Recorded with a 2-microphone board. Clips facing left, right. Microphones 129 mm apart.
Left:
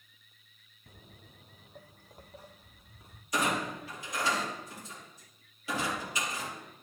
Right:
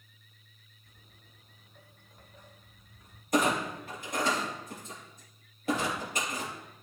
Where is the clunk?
55° right (ahead or behind), 3.5 m.